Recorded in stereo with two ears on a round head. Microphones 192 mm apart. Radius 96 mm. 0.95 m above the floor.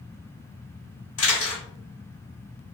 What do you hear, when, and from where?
1.2 s a camera shutter: 70° left (ahead or behind), 1.5 m